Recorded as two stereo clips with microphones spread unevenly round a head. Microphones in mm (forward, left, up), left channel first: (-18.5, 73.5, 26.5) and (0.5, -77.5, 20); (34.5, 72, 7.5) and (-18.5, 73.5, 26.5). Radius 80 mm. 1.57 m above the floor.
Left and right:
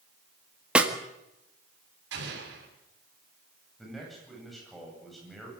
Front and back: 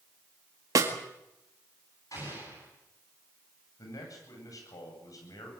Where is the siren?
I don't hear a siren.